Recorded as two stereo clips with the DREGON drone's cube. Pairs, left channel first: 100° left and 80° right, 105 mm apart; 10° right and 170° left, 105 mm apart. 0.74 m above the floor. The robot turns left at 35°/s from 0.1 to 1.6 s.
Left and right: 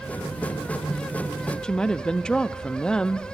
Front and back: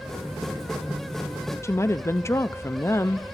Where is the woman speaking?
25° left, 0.5 m.